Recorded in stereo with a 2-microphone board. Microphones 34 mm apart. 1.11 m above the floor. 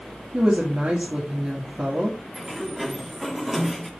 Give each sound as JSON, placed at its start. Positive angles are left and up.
{"t": 0.3, "sound": "a woman speaking", "side_deg": -50, "distance_m": 3.0}
{"t": 2.3, "sound": "a sliding door", "side_deg": -5, "distance_m": 2.0}